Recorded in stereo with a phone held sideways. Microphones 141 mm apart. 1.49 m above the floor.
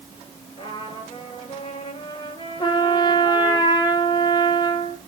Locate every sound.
0.6 s a trumpet: 40° left (ahead or behind), 9.5 m
2.6 s a trumpet: 35° left (ahead or behind), 3.5 m